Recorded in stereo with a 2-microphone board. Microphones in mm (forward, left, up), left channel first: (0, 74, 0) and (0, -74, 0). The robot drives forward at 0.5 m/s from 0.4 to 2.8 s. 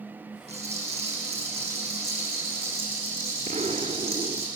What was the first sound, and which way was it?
A rattle, 45° right (ahead or behind).